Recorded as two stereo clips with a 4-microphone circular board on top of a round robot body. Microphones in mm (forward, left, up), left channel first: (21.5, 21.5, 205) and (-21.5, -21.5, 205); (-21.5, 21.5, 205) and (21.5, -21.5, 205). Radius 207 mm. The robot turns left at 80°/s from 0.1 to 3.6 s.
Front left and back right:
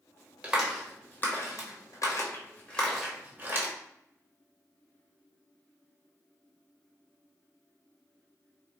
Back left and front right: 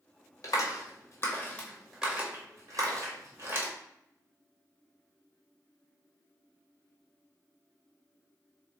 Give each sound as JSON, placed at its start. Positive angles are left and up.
{"t": 0.4, "sound": "a clap", "azimuth_deg": 160, "distance_m": 1.7}